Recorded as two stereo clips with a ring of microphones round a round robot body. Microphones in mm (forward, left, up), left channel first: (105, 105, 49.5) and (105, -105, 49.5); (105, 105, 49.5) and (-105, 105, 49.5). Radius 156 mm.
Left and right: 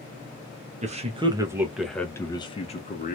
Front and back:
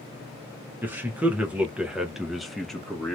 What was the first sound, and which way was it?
A man speaking, 105° right.